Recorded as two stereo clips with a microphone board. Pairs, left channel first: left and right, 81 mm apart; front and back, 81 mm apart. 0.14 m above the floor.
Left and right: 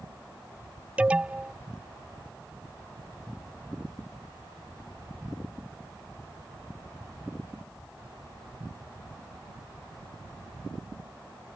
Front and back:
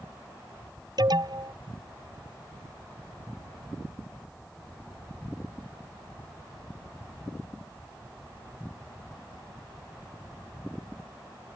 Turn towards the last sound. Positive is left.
turn(degrees=-165)